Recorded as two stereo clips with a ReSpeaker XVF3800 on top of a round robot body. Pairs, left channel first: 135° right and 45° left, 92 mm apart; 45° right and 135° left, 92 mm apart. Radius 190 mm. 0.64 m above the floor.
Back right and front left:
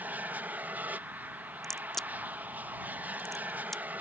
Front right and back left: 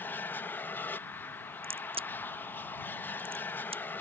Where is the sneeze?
No sneeze in this recording.